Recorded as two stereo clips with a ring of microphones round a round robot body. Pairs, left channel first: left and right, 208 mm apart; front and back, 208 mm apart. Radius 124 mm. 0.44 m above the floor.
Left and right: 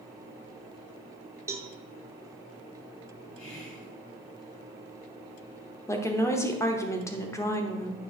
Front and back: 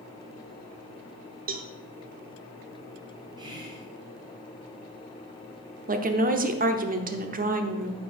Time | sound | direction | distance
1.5 | a cowbell | 160° right | 0.9 m
3.4 | whispering | 110° left | 3 m
5.9 | a woman speaking | 160° left | 1.0 m